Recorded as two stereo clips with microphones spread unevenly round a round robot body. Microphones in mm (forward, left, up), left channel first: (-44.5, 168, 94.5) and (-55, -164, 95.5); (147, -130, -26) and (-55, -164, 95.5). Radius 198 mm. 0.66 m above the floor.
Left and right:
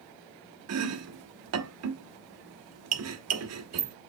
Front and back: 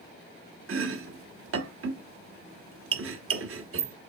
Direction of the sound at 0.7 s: 135° right.